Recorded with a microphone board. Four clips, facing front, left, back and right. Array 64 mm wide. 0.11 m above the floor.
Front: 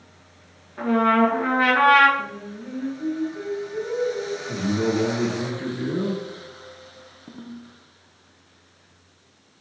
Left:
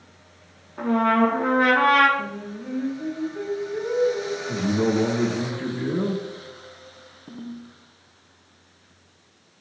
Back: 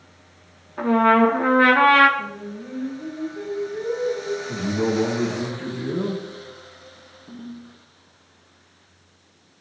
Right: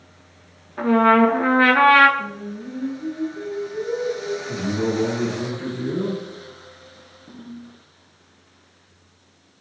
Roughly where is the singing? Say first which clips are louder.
Right 1 dB, back 1 dB; left.